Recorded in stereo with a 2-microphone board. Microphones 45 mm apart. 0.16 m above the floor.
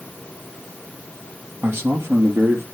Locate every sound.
1.6 s a man speaking: 55° right (ahead or behind), 3 m; by 2.6 s 65° right (ahead or behind), 3.5 m